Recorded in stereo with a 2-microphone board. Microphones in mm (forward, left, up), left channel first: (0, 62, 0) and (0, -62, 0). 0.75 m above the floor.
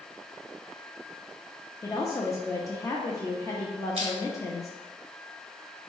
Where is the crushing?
45° right (ahead or behind), 1.3 m.